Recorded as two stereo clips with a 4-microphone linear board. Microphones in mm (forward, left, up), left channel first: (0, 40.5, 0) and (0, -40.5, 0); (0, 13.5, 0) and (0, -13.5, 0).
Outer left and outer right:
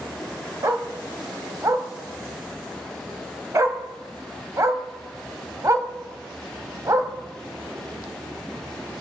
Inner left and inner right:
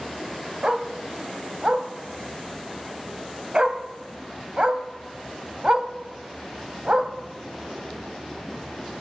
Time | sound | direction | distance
0.6 | a dog barking | 40° right (ahead or behind) | 0.8 m